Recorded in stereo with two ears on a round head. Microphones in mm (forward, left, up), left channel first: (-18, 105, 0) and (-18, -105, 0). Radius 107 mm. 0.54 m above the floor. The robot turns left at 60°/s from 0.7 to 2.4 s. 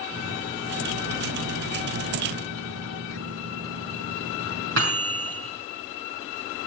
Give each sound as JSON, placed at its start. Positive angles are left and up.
{"t": 0.1, "sound": "a microwave", "azimuth_deg": -10, "distance_m": 6.0}